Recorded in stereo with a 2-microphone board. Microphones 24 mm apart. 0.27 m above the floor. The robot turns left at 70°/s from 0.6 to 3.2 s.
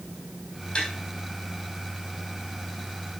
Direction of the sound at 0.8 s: 45° left (ahead or behind).